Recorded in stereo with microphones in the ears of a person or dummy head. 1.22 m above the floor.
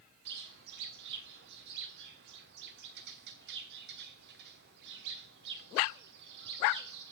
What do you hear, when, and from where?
0.2 s a bird: 55° right (ahead or behind), 1.2 m